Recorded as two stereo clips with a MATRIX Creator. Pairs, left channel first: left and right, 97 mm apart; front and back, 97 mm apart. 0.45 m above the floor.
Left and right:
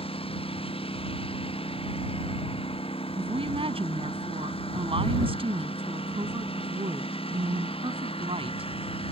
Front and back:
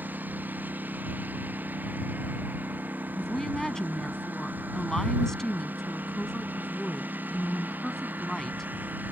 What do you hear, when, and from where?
0.0 s a lawn mower: 105° left
3.2 s a woman speaking: 85° right